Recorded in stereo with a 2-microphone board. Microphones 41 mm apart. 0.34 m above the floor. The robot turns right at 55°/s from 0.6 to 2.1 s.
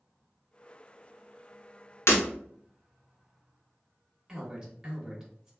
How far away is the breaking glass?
About 0.9 m.